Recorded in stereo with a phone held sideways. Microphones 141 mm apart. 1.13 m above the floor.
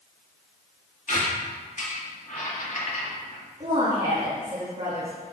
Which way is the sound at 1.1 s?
55° left (ahead or behind).